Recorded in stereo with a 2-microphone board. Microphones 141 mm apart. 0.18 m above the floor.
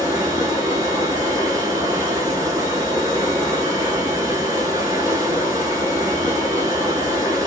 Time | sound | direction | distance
0.0 | running water | 25° right (ahead or behind) | 1.0 m